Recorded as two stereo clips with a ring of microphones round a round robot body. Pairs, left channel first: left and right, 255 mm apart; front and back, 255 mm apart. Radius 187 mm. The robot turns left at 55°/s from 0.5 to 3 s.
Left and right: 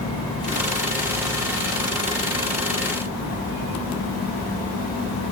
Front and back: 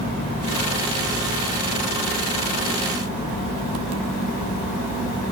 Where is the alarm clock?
No alarm clock in this recording.